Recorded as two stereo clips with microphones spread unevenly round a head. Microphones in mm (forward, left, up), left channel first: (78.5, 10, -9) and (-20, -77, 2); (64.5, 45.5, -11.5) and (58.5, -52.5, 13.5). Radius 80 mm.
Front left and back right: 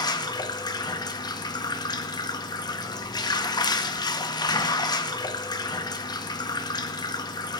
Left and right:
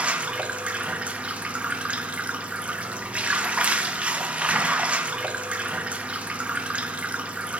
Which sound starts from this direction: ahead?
Running water, at 0.0 s.